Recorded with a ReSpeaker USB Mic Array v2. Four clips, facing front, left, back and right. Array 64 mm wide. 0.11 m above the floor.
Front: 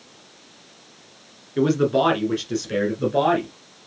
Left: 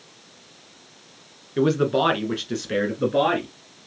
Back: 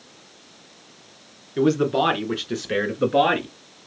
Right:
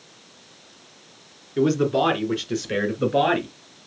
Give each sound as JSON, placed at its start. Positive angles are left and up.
{"t": 1.6, "sound": "a man speaking", "azimuth_deg": 80, "distance_m": 1.2}